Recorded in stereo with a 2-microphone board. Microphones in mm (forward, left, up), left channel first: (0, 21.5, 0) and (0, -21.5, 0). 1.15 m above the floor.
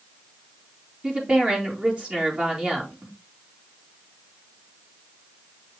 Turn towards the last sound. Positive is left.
turn(degrees=-30)  # may be behind; listen again after turning